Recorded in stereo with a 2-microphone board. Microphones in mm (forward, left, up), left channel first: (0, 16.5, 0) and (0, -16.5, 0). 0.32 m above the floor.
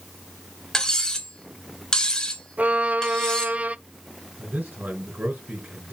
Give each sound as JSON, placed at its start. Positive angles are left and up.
{"t": 0.7, "sound": "cutlery clinking", "side_deg": 25, "distance_m": 2.0}
{"t": 2.6, "sound": "a violin", "side_deg": -50, "distance_m": 0.6}
{"t": 4.4, "sound": "a man speaking", "side_deg": -65, "distance_m": 4.5}